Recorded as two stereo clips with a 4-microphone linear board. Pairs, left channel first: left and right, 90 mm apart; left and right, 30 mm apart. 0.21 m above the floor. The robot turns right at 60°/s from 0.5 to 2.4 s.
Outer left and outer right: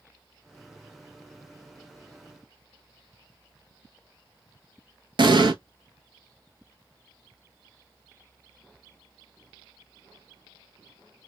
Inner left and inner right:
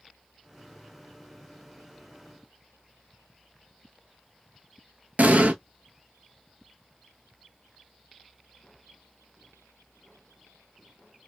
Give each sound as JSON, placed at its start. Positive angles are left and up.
{"t": 5.2, "sound": "an explosion", "side_deg": -60, "distance_m": 0.6}